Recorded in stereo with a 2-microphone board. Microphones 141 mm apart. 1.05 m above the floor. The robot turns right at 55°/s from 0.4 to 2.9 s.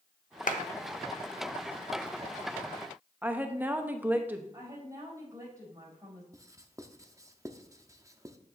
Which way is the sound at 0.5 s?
70° left (ahead or behind).